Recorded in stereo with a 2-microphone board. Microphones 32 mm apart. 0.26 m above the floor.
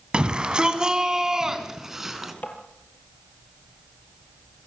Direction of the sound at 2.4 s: 70° left (ahead or behind).